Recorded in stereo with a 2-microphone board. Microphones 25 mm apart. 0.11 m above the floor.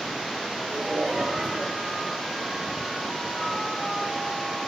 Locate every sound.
0.7 s laughter: 40° right (ahead or behind), 8 m